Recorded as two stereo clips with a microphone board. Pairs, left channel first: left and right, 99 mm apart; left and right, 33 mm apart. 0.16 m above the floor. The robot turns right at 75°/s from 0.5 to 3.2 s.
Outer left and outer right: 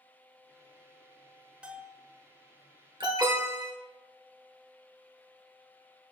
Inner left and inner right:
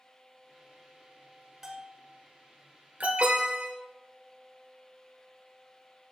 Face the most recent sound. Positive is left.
turn(degrees=-45)  # may be behind; listen again after turning